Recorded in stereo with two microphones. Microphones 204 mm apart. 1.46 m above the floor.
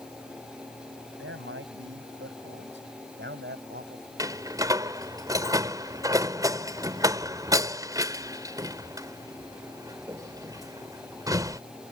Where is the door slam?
15° right (ahead or behind).